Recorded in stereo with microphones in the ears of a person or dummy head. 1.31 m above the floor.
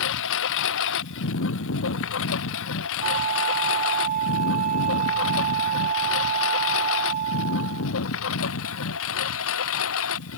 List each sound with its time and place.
0.0 s a lawn mower: 70° left (ahead or behind); by 10.4 s 75° left (ahead or behind)
3.0 s a flute: 45° right (ahead or behind)